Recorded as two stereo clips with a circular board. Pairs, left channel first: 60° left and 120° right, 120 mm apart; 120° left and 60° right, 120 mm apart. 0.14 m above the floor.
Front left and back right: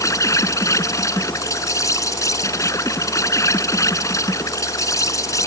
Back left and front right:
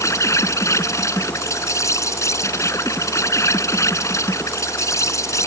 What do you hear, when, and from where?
0.0 s an insect: 90° left